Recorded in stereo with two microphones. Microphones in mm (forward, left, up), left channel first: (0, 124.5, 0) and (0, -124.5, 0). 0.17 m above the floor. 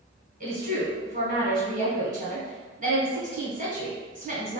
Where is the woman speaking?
35° right (ahead or behind), 1.2 m.